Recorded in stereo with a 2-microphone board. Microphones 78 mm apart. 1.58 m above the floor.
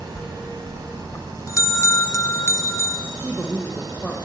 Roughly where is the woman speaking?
Centre.